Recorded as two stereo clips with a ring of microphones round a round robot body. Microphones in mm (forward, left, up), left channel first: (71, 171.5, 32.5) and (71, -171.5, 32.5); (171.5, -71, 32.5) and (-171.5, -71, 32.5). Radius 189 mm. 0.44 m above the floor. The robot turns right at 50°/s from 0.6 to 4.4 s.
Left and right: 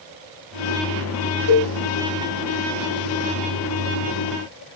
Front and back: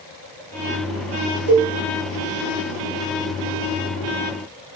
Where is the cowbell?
120° left, 3 m; by 1.7 s 135° left, 3 m.